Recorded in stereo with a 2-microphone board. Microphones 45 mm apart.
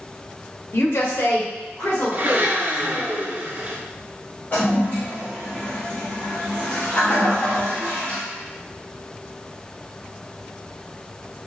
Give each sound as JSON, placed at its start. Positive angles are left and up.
{"t": 0.7, "sound": "a woman speaking", "side_deg": 60, "distance_m": 0.8}
{"t": 2.1, "sound": "a blender", "side_deg": -45, "distance_m": 0.6}
{"t": 4.5, "sound": "a toilet flushing", "side_deg": 35, "distance_m": 1.6}